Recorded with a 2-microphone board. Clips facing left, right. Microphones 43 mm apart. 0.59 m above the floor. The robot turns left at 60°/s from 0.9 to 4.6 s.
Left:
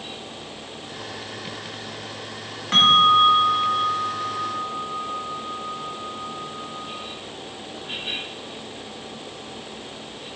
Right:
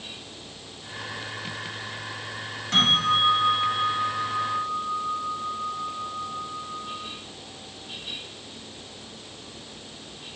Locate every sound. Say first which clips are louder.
2.7 s a bell: left 7 dB; 60° left, 1.4 m; by 7.0 s 50° right, 1.4 m